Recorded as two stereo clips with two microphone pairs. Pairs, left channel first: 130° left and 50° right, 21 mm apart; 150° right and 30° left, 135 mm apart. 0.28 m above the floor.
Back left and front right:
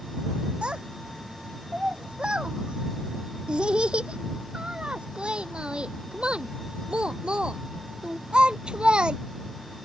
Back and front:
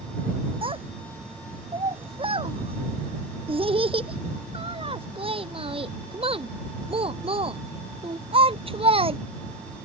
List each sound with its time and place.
0.6 s a child speaking: 20° right; by 9.2 s 15° right